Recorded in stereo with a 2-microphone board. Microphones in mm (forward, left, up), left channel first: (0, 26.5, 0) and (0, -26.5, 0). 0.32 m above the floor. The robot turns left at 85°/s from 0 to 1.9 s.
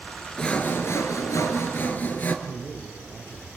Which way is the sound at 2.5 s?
80° left.